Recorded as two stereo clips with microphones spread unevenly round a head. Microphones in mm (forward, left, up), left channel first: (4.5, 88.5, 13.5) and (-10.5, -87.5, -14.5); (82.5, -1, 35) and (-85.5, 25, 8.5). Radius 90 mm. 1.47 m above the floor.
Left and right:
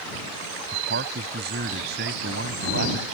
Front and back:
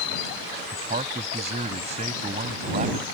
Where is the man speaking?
130° right.